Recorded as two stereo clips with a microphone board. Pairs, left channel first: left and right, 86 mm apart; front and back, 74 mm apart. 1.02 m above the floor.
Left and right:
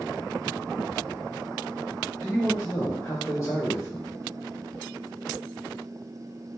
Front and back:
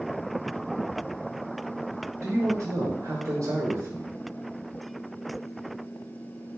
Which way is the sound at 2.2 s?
150° left.